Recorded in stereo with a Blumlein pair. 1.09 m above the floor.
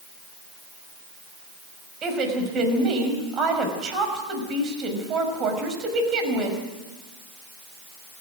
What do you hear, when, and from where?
2.0 s a woman speaking: 30° right, 5.5 m